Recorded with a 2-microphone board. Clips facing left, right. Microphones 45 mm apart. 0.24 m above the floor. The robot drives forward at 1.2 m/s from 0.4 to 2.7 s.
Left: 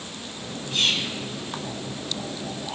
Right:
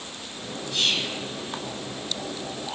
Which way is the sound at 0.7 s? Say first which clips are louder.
Left 1 dB; 35° left (ahead or behind).